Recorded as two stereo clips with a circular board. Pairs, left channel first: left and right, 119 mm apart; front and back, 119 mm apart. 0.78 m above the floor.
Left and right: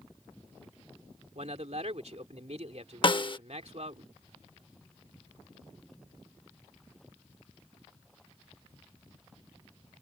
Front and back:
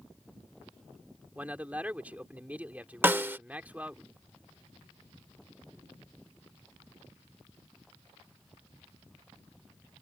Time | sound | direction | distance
1.4 | a man speaking | 105° right | ?
3.0 | a snare drum | 115° left | ?